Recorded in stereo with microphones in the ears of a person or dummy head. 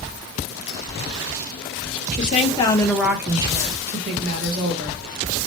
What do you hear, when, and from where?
2.1 s a woman speaking: 50° left (ahead or behind), 0.6 m; by 5.0 s 50° right (ahead or behind), 1.4 m